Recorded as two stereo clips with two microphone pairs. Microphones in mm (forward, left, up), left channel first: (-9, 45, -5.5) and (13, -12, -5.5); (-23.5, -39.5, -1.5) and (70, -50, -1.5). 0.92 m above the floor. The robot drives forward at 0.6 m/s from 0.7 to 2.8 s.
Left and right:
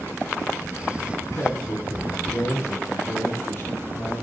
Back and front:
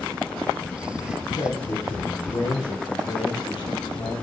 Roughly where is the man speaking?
Behind left.